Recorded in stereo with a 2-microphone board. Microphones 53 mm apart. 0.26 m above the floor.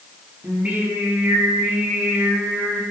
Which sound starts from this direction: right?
Singing, at 0.4 s.